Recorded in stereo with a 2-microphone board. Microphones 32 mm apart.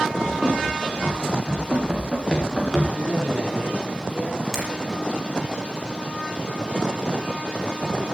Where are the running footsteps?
30° right (ahead or behind), 8.5 m; by 2.8 s 5° right (ahead or behind), 6 m.